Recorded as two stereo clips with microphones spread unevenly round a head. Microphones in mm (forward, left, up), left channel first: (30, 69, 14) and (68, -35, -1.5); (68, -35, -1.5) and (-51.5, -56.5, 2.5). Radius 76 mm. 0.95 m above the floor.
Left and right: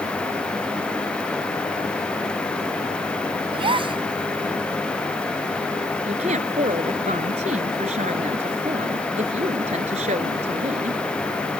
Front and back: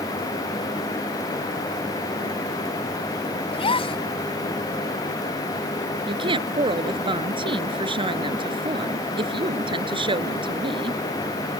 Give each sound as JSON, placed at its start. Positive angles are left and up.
{"t": 3.5, "sound": "a gasp", "azimuth_deg": -30}
{"t": 6.1, "sound": "a woman speaking", "azimuth_deg": -120}